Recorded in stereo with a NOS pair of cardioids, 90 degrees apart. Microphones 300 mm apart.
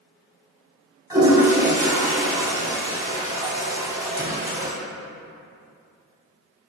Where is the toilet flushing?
10° right, 1.1 m.